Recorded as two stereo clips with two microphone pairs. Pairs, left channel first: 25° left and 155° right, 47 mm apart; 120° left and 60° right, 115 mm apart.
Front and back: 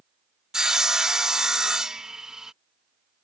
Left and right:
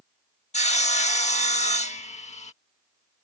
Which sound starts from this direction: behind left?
Sawing, at 0.5 s.